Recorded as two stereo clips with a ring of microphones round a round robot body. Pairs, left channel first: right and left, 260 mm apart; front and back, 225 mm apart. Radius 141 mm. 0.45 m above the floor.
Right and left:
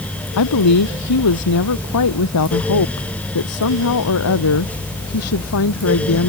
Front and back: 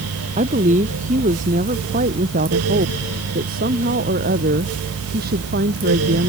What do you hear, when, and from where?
0.4 s a woman speaking: 115° right; by 6.3 s 125° right